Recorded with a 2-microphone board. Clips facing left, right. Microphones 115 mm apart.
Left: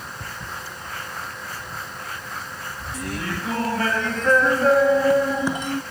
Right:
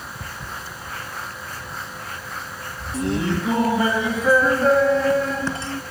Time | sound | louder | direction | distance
2.9 | laughter | right 8 dB | 30° right (ahead or behind) | ?